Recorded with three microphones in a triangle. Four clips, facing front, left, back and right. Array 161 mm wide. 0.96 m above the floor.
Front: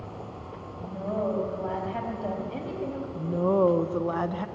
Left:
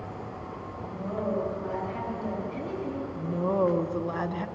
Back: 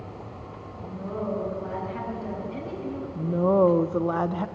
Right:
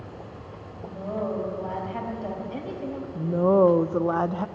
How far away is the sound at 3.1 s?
About 0.7 m.